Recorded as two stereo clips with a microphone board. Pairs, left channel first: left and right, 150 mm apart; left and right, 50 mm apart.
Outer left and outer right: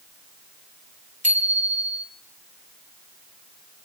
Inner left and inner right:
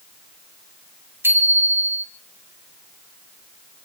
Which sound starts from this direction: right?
A bicycle bell, at 1.2 s.